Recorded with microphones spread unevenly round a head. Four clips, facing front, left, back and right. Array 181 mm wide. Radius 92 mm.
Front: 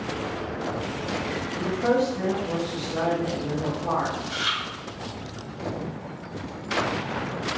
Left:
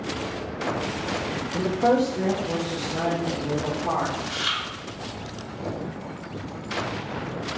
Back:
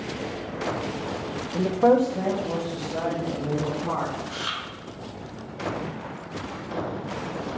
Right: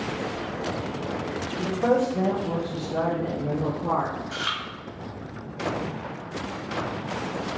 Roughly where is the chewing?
Behind right.